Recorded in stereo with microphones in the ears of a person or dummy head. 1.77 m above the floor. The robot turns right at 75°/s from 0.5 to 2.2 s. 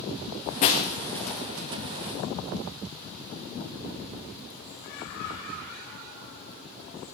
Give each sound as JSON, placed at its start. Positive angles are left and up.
{"t": 0.6, "sound": "breaking glass", "side_deg": 35, "distance_m": 1.3}